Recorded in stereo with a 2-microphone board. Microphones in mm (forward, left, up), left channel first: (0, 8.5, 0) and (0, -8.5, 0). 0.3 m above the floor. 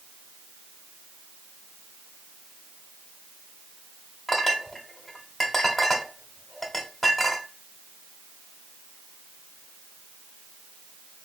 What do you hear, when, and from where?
4.3 s a clink: centre (ahead or behind), 1.0 m